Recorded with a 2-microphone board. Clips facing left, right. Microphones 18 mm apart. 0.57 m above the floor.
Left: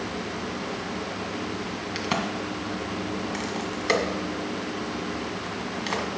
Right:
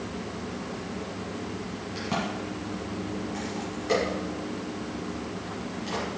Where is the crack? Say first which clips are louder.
Left 2 dB; 70° left (ahead or behind), 1.7 m.